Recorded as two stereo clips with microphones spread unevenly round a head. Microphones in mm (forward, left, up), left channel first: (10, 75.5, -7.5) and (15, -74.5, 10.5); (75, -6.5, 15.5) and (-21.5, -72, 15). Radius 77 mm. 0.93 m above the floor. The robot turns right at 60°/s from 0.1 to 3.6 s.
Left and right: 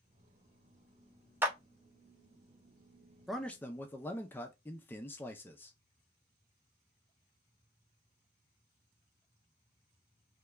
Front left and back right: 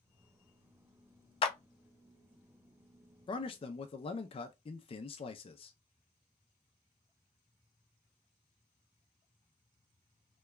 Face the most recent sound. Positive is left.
turn(degrees=25)